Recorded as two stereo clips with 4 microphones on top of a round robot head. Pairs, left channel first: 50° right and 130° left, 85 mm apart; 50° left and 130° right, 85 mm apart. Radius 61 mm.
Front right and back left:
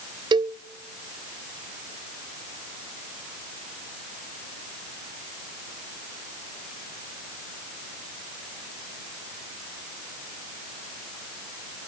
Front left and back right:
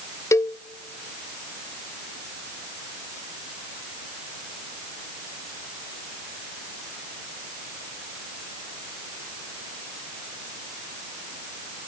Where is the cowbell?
105° left, 0.5 m.